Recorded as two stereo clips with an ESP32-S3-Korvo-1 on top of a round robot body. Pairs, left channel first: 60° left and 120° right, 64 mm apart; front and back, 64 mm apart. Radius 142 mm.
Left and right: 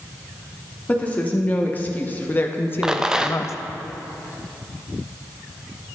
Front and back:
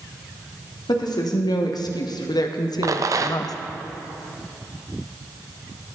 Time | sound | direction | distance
0.9 | a woman speaking | 10° right | 1.8 m
2.8 | a rattle | 160° left | 1.0 m